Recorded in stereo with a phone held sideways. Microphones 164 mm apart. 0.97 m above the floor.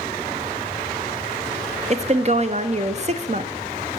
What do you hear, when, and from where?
1.9 s a woman speaking: 45° right (ahead or behind), 0.5 m